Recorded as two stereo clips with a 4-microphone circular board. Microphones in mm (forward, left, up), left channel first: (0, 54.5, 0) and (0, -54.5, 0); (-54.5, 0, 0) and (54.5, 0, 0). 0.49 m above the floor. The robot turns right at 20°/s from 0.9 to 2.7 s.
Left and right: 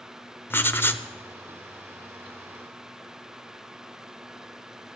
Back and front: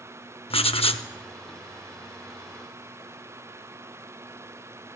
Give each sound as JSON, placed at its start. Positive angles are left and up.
{"t": 0.5, "sound": "writing", "azimuth_deg": 160, "distance_m": 0.6}